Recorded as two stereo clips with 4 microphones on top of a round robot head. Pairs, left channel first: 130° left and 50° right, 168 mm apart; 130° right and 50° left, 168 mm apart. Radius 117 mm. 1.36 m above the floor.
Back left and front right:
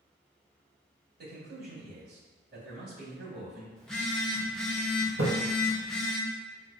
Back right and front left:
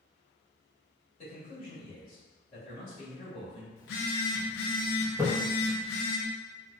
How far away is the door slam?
No door slam in this recording.